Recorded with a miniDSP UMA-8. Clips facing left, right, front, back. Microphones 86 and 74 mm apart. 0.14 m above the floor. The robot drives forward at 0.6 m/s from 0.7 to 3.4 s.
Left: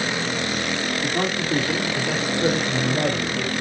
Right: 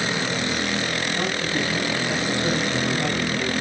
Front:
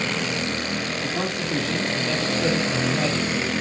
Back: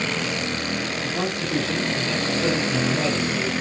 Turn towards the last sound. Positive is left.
turn(degrees=115)